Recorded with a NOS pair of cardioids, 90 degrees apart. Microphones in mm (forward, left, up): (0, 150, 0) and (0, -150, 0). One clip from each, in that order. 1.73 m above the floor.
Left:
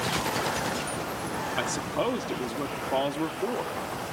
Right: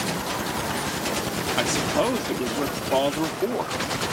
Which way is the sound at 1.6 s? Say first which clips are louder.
Right 7 dB; 25° right.